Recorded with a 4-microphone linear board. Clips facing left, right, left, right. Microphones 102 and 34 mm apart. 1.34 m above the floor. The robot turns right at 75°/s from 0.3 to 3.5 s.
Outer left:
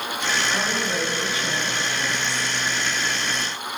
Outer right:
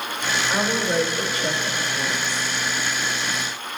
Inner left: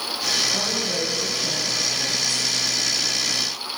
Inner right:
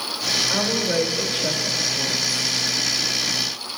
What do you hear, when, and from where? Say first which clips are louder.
0.5 s a woman speaking: outer right 3 dB, inner right 3 dB; 155° right, 2.5 m; by 2.5 s 5° right, 2.5 m